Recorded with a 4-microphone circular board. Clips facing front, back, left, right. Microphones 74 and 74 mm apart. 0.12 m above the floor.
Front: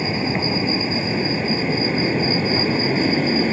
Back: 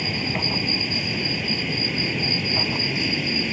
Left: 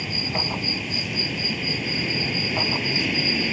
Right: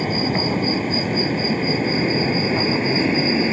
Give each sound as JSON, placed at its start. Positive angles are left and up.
{"t": 0.0, "sound": "an aircraft", "azimuth_deg": -55}